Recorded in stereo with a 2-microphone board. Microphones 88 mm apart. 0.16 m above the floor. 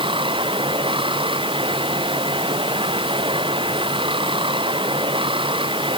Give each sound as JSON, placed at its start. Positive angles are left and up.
{"t": 0.0, "sound": "running water", "side_deg": -75}